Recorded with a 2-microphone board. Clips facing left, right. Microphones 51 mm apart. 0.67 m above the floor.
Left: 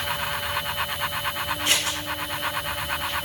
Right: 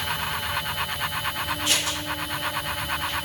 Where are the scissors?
70° left (ahead or behind), 1.7 m.